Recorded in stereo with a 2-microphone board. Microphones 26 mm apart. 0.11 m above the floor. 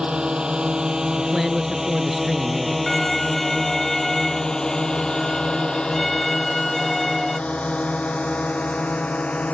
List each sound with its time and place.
0.0 s a drone: 40° right (ahead or behind); by 9.6 s 65° left (ahead or behind)
1.2 s a man speaking: 10° right (ahead or behind)
2.9 s a violin: 5° left (ahead or behind)